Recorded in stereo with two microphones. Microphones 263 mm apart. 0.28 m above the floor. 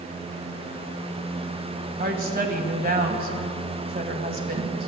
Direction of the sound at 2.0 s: 35° right (ahead or behind).